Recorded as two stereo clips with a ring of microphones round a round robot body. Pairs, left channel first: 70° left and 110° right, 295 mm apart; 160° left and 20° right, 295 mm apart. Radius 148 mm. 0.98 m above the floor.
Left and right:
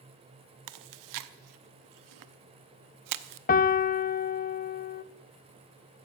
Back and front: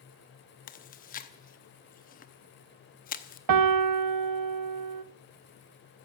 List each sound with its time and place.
0.7 s chewing: 140° right, 0.7 m
3.5 s a piano: 5° left, 0.8 m